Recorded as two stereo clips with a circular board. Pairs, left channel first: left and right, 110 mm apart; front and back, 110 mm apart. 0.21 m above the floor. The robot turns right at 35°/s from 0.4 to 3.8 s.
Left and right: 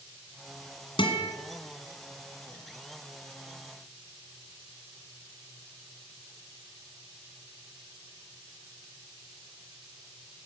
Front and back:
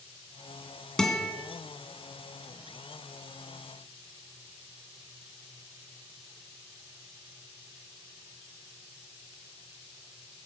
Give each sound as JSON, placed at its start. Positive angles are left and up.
{"t": 1.0, "sound": "a guitar", "azimuth_deg": 85, "distance_m": 2.0}